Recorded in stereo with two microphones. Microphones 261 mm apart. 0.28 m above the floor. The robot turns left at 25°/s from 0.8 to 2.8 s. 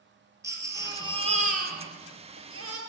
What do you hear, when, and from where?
0.4 s a baby crying: 10° right, 2.5 m; by 2.8 s 60° right, 2.5 m